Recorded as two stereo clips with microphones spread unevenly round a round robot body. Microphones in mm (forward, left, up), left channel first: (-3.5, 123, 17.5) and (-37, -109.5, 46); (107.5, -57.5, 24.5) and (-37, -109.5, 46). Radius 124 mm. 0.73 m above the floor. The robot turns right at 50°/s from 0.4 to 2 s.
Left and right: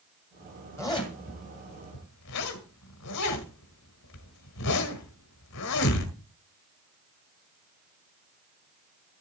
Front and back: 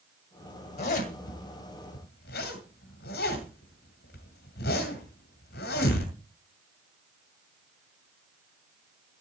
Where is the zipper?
Straight ahead, 2 m; by 6.2 s 65° left, 2 m.